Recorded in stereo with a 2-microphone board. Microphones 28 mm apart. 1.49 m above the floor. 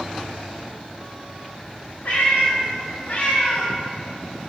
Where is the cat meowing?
70° left (ahead or behind), 2 m; by 4.5 s 5° right (ahead or behind), 1.0 m.